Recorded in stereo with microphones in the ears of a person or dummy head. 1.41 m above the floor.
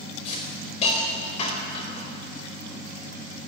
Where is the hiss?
35° left (ahead or behind), 4.5 m.